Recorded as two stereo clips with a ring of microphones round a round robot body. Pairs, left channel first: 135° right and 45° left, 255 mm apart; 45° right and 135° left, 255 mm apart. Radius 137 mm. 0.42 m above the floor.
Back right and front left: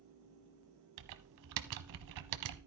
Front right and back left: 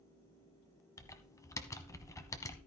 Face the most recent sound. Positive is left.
turn(degrees=35)